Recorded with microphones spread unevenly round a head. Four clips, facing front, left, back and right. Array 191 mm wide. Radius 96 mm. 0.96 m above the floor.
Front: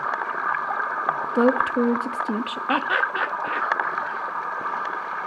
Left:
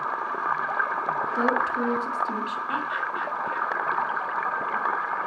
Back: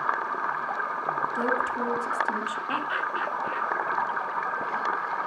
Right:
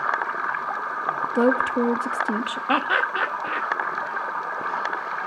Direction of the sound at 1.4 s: 40° right.